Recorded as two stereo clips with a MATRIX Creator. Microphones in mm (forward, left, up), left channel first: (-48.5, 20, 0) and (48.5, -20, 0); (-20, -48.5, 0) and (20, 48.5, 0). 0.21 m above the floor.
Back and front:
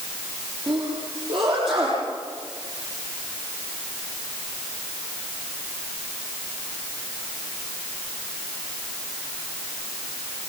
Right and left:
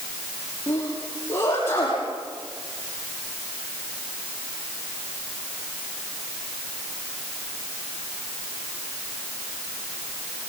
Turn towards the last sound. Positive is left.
turn(degrees=-50)